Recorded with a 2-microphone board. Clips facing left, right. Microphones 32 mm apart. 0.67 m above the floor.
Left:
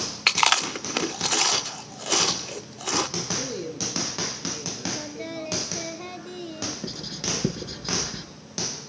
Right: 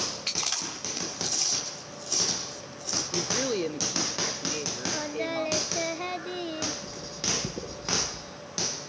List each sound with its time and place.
0.3 s chewing: 80° left, 1.0 m
3.1 s a woman speaking: 45° right (ahead or behind), 1.6 m
4.9 s singing: 25° right (ahead or behind), 0.8 m
6.8 s writing: 60° left (ahead or behind), 6.5 m